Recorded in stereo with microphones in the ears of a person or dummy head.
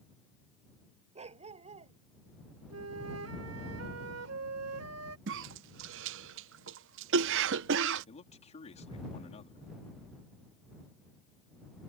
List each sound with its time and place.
1.1 s a dog barking: 30° right (ahead or behind)
2.7 s a flute: 80° right
5.3 s a cough: 75° right (ahead or behind)
8.1 s a man speaking: 40° left (ahead or behind)